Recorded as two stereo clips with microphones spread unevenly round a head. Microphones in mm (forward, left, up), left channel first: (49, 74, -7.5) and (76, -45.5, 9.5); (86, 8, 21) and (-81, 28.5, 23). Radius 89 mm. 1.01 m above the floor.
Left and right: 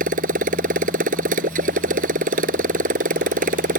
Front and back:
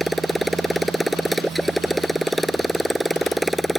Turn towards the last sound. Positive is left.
turn(degrees=-95)